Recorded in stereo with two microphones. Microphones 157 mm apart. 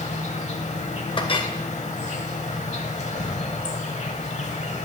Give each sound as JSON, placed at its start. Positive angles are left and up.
{"t": 0.0, "sound": "an insect", "side_deg": 45, "distance_m": 0.8}
{"t": 1.2, "sound": "a clink", "side_deg": 35, "distance_m": 0.6}